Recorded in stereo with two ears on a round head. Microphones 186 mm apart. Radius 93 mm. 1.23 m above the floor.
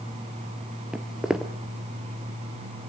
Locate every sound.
0.9 s footsteps: 5° right (ahead or behind), 1.3 m